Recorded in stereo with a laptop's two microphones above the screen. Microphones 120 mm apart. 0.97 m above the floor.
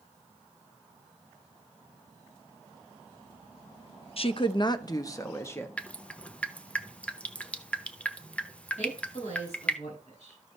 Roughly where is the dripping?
Centre.